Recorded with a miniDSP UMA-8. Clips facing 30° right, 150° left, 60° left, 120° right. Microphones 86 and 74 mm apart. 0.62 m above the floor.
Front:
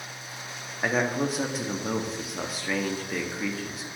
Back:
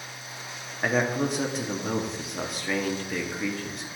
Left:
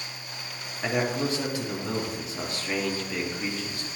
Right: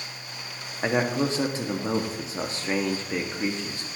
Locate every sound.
0.8 s a man speaking: 120° right, 0.6 m